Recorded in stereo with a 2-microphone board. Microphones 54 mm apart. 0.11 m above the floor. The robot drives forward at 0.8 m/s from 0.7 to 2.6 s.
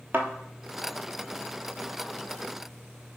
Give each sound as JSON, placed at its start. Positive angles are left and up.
{"t": 0.1, "sound": "a thud", "side_deg": -35, "distance_m": 0.7}